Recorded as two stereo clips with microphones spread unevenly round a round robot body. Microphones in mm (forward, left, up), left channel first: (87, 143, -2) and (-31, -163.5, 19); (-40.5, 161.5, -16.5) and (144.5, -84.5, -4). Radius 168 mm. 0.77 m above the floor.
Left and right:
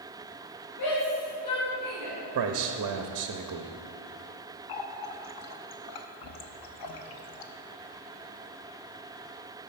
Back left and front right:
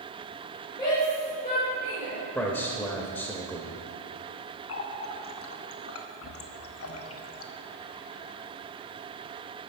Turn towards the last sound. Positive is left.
turn(degrees=85)